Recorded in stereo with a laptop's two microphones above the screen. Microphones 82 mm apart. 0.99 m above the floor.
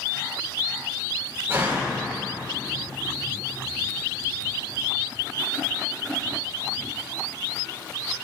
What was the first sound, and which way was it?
A door slam, 30° right (ahead or behind).